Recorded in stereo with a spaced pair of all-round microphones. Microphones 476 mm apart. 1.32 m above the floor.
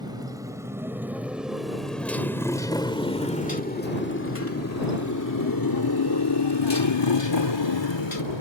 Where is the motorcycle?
10° right (ahead or behind); by 8.4 s 70° left (ahead or behind).